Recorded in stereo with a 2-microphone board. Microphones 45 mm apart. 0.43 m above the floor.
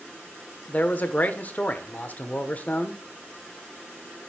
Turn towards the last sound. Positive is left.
turn(degrees=35)  # may be behind; listen again after turning